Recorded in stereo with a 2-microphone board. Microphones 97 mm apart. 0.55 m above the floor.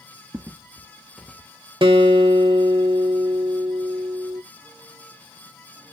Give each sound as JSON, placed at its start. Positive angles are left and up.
{"t": 0.3, "sound": "footsteps", "side_deg": -30, "distance_m": 0.6}
{"t": 1.8, "sound": "a guitar", "side_deg": -60, "distance_m": 0.7}